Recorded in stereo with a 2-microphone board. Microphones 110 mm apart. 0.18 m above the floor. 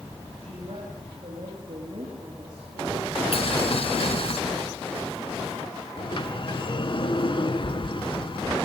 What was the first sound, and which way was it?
A woman speaking, 45° right (ahead or behind).